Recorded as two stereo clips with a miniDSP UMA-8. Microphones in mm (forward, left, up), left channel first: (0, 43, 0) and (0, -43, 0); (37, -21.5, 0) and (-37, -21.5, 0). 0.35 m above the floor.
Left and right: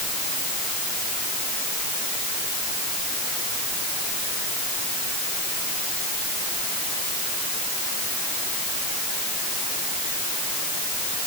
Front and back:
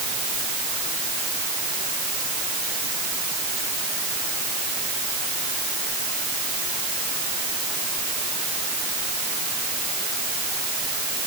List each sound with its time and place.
Only background noise.